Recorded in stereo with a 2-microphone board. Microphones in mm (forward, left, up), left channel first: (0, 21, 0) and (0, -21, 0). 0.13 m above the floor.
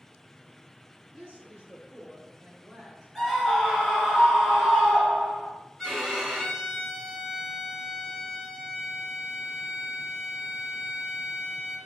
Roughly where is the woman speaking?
Right.